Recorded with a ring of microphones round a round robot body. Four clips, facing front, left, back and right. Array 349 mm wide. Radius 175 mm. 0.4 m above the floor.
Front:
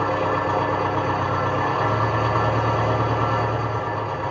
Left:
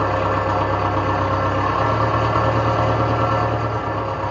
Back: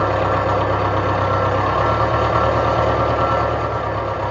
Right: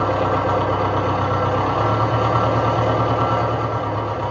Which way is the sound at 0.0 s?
170° right.